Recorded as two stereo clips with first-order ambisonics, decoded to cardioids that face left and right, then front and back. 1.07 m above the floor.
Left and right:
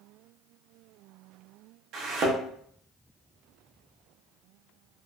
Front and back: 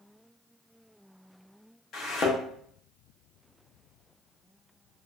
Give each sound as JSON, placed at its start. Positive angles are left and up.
{"t": 1.9, "sound": "a thud", "azimuth_deg": -50, "distance_m": 0.7}